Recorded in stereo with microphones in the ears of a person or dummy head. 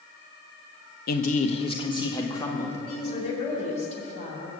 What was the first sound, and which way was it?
A man speaking, 55° left (ahead or behind).